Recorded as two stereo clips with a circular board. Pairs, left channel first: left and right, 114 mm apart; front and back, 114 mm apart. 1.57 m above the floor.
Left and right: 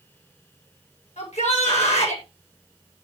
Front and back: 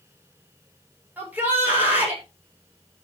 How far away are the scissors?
I don't hear scissors.